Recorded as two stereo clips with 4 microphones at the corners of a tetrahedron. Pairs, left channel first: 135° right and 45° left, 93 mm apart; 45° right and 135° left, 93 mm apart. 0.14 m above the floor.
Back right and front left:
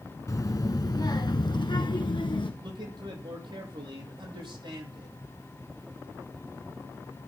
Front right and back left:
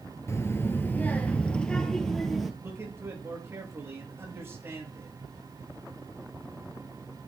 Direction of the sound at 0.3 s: 95° right.